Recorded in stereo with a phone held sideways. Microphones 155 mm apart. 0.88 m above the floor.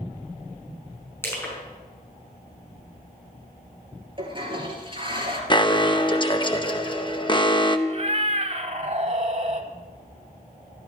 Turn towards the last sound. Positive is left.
turn(degrees=-45)  # may be behind; listen again after turning